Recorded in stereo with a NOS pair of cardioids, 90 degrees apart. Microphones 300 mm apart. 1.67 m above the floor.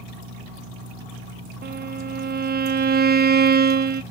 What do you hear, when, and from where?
1.6 s a violin: 35° right, 0.6 m